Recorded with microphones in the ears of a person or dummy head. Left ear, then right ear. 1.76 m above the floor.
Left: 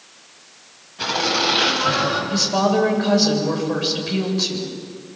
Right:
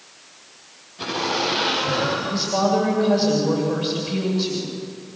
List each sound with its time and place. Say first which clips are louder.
1.0 s laughter: left 4 dB; 15° left (ahead or behind), 10 m; by 2.2 s 25° left (ahead or behind), 9 m
2.3 s a woman speaking: left 2 dB; 20° left (ahead or behind), 8 m